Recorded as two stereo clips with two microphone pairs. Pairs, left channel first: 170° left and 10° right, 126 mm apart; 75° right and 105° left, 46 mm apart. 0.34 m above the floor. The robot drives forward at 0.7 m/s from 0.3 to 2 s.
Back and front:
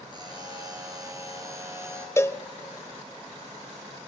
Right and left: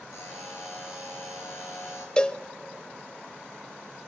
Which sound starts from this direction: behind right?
A cowbell, at 2.2 s.